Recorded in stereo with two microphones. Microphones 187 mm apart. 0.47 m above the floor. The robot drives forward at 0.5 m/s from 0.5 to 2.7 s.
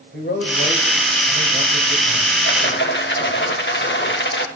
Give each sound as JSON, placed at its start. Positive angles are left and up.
{"t": 0.1, "sound": "a man speaking", "side_deg": 60, "distance_m": 2.0}
{"t": 2.4, "sound": "a rattle", "side_deg": 70, "distance_m": 0.9}